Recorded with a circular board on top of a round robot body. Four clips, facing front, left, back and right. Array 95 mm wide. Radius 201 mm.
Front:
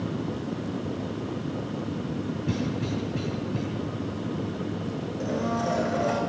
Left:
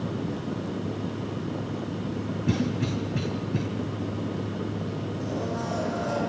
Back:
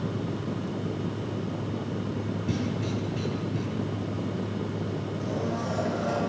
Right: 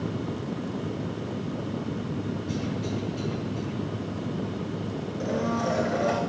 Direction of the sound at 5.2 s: 65° right.